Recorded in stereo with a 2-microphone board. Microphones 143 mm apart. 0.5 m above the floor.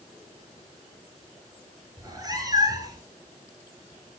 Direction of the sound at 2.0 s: 30° right (ahead or behind).